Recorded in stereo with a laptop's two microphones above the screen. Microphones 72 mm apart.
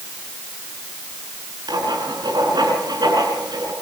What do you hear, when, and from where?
1.7 s writing: 75° right (ahead or behind), 6.5 m